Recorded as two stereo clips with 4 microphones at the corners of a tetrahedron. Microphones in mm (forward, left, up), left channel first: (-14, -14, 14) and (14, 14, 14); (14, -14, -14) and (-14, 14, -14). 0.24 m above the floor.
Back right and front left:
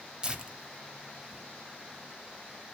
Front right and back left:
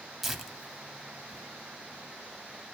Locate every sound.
0.2 s tearing paper: 60° left, 1.0 m